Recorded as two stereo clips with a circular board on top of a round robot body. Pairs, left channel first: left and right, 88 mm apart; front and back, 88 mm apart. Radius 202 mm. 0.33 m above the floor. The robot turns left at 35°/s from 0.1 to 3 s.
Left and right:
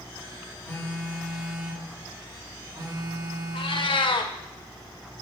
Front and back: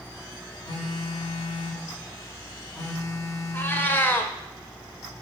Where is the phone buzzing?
25° left, 1.9 m; by 4.0 s 55° right, 1.9 m.